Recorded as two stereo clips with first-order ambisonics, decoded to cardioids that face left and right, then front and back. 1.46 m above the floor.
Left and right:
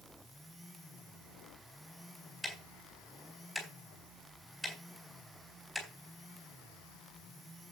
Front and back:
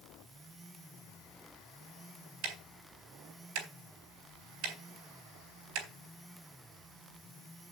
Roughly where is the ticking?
Behind.